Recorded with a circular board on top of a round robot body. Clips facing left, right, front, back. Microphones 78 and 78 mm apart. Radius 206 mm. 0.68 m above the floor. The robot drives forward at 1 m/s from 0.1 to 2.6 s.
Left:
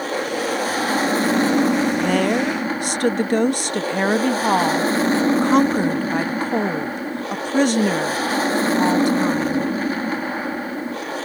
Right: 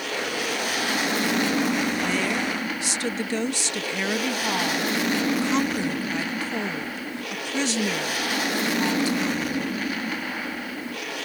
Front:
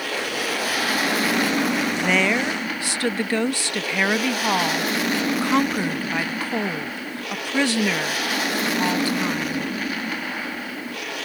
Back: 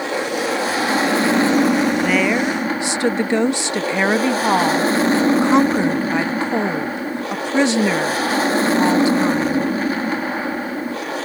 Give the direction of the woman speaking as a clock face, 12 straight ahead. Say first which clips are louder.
Left 7 dB, back 4 dB; 9 o'clock.